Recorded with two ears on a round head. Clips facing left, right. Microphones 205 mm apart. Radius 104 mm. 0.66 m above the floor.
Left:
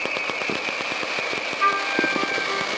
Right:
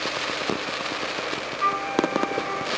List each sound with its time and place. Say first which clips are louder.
1.6 s a flute: right 2 dB; 20° left (ahead or behind)